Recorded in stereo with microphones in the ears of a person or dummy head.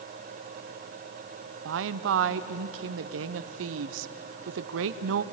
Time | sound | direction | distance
1.6 | a woman speaking | 80° right | 0.7 m